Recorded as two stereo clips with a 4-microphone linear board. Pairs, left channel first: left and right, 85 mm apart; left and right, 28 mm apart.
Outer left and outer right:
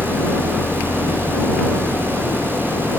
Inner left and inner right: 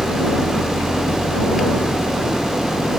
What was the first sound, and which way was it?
An engine running, 15° left (ahead or behind).